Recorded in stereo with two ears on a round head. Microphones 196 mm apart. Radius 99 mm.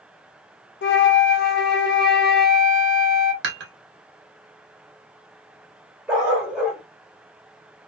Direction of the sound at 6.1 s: 5° right (ahead or behind).